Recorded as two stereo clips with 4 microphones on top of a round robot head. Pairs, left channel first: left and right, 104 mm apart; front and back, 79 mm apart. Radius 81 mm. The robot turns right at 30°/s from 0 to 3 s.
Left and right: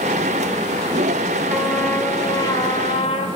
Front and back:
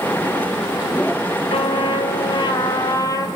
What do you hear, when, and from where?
1.5 s a trumpet: 5° right, 3 m; by 3.3 s 40° left, 3 m